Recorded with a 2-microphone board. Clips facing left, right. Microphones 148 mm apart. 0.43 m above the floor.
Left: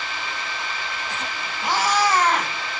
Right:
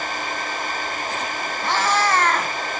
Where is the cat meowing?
10° left (ahead or behind), 1.5 m.